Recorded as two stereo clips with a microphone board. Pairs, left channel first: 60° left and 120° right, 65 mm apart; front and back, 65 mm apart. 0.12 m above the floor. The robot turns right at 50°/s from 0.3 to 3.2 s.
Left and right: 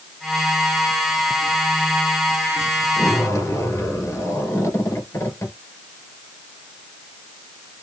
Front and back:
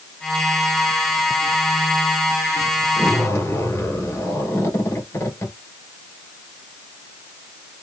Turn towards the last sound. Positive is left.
turn(degrees=30)